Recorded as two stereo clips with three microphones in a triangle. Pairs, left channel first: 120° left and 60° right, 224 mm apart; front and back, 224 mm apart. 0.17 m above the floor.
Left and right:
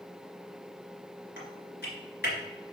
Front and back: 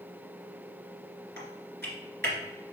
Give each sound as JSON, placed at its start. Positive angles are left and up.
{"t": 1.4, "sound": "typing on a keyboard", "azimuth_deg": 150, "distance_m": 2.0}